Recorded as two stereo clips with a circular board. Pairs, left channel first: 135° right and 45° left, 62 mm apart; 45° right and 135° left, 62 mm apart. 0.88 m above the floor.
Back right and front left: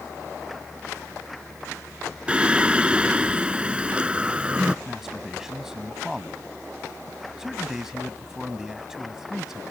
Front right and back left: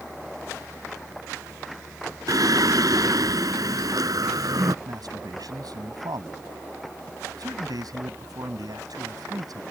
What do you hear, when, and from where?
2.3 s singing: 120° left
4.8 s a man speaking: 130° left